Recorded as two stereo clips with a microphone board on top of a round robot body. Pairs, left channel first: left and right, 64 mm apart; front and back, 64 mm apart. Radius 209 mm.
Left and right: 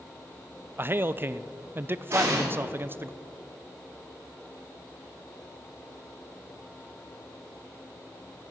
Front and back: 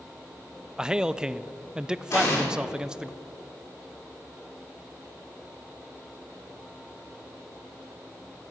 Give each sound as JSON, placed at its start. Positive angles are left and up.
{"t": 0.8, "sound": "a man speaking", "azimuth_deg": -105, "distance_m": 0.6}
{"t": 2.1, "sound": "an explosion", "azimuth_deg": -40, "distance_m": 2.0}